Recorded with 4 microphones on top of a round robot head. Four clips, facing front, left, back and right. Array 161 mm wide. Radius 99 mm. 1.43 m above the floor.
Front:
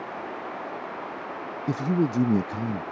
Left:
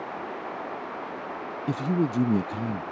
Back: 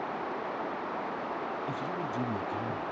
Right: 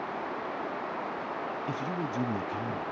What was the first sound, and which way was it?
A man speaking, 35° left.